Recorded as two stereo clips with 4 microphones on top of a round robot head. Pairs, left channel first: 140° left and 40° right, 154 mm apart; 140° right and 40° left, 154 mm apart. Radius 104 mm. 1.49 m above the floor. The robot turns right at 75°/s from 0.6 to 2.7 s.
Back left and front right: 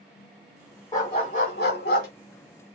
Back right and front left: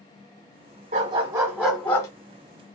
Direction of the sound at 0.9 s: 70° left.